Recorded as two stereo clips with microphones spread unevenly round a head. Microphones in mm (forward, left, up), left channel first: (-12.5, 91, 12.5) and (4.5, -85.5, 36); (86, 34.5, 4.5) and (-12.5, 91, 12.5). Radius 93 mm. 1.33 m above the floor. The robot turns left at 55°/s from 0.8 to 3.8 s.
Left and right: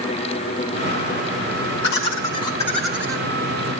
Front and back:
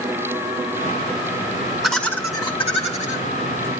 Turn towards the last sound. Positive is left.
turn(degrees=-45)